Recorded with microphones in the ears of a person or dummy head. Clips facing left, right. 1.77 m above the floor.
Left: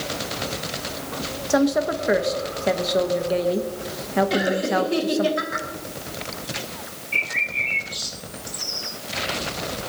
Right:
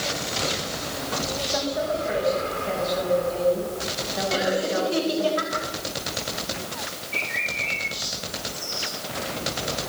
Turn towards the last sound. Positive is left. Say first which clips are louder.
# right 1 dB
turn(degrees=45)  # may be behind; listen again after turning